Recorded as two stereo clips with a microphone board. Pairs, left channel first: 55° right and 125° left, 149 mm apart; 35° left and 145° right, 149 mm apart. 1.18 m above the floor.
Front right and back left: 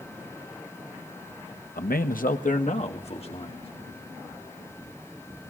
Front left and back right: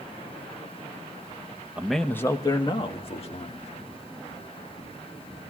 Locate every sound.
1.8 s a man speaking: 65° right, 1.0 m; by 3.7 s 5° right, 3 m